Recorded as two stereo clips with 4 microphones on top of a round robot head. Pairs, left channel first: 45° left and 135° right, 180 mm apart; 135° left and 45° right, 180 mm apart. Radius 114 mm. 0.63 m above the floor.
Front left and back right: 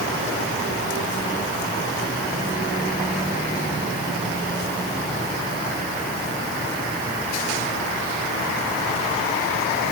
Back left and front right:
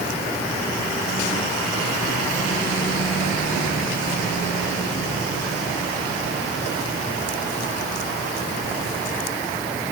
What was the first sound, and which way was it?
Only background noise.